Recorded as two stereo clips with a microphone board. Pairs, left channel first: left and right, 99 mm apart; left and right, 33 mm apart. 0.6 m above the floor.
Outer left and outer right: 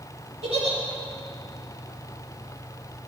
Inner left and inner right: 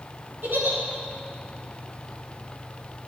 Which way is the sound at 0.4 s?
85° right.